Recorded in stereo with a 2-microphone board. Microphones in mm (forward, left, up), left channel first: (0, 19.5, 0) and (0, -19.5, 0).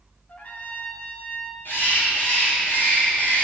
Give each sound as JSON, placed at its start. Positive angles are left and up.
{"t": 0.3, "sound": "a trumpet", "side_deg": 50, "distance_m": 1.4}
{"t": 1.6, "sound": "a bird", "side_deg": 80, "distance_m": 5.0}